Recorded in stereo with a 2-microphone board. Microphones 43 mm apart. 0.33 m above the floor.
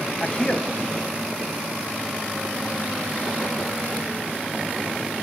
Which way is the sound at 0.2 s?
25° left (ahead or behind).